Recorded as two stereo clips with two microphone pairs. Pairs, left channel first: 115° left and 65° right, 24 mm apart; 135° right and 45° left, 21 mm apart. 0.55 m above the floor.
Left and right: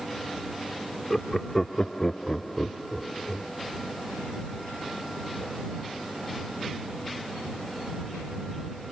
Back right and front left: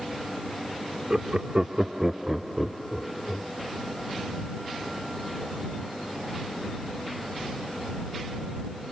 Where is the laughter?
45° left; by 3.5 s 175° right.